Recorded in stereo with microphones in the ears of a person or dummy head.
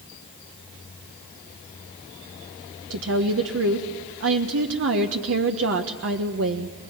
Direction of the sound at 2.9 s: 80° right.